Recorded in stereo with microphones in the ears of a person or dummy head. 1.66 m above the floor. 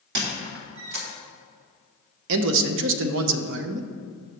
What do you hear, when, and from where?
0.1 s a squeak: 60° right (ahead or behind), 1.4 m
2.3 s a man speaking: 65° right (ahead or behind), 0.7 m